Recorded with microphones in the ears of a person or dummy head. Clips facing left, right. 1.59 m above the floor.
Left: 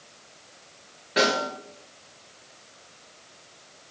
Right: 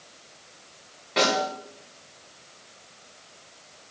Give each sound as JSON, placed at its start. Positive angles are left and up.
{"t": 1.2, "sound": "a snare drum", "side_deg": 5, "distance_m": 4.5}